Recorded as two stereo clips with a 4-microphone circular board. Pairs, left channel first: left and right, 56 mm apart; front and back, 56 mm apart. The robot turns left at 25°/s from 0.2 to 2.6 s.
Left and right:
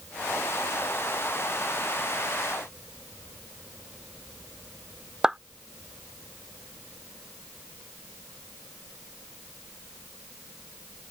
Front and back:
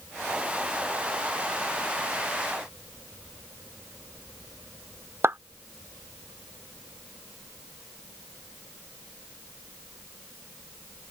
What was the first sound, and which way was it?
A clap, 165° right.